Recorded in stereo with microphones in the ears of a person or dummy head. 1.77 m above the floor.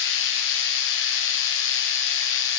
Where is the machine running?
70° left (ahead or behind), 1.5 m.